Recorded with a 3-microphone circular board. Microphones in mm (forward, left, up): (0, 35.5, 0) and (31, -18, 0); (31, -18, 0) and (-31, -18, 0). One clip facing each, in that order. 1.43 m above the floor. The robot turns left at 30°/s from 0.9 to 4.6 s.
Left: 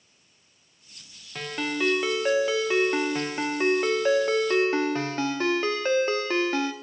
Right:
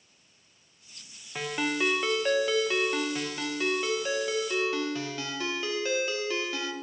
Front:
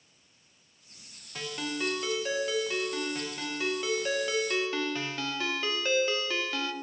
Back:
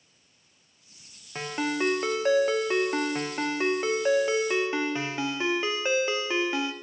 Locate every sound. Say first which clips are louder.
1.4 s a ringtone: even, back 6 dB; 135° right, 0.6 m; by 6.7 s 125° left, 0.6 m